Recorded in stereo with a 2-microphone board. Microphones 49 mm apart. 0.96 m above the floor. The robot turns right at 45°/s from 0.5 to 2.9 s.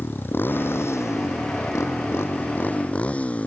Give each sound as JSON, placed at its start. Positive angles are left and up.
{"t": 0.0, "sound": "a motorcycle", "azimuth_deg": 45}